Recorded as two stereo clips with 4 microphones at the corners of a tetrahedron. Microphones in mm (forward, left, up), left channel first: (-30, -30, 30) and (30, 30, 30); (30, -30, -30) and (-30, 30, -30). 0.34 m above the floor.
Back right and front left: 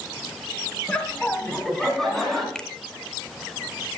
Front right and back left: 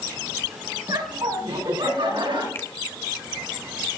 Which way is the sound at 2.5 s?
60° right.